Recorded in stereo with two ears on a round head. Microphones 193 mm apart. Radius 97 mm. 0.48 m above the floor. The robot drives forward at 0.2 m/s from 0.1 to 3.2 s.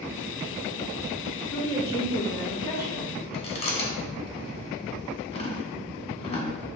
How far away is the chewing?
About 1.1 m.